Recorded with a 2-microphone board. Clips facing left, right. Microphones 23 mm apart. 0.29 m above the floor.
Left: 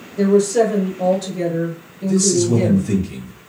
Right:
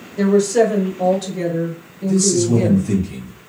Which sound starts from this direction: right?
A woman speaking, at 0.2 s.